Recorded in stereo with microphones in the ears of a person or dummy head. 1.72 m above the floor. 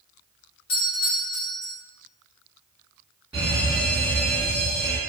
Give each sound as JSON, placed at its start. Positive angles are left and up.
{"t": 0.7, "sound": "a doorbell", "side_deg": 75, "distance_m": 1.2}
{"t": 3.3, "sound": "an alarm", "side_deg": -10, "distance_m": 1.2}